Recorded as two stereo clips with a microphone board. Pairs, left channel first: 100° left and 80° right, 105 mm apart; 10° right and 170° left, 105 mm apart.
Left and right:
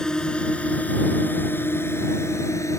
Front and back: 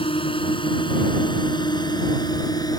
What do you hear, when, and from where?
0.0 s a drone: 20° left; by 2.8 s 40° left